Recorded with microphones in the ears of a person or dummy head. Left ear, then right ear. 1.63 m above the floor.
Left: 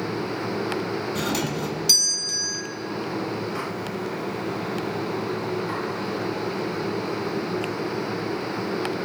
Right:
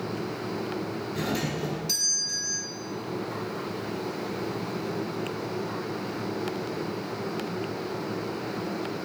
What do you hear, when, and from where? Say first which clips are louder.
1.1 s a doorbell: left 1 dB; 50° left (ahead or behind), 1.0 m